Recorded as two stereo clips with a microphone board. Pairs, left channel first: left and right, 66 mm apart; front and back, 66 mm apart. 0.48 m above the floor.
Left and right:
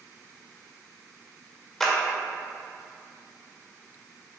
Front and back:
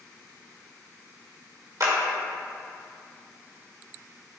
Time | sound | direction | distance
1.8 | a clap | 175° left | 1.7 m